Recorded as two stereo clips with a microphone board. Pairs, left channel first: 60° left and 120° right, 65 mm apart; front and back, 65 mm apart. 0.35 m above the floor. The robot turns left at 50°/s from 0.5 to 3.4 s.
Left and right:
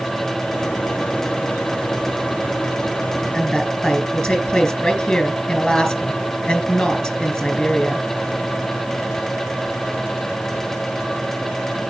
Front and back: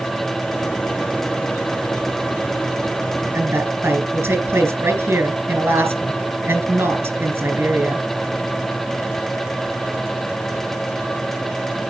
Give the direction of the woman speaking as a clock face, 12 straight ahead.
7 o'clock.